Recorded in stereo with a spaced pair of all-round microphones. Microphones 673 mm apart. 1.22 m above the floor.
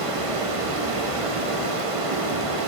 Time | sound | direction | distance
0.0 | running water | 50° right (ahead or behind) | 1.0 m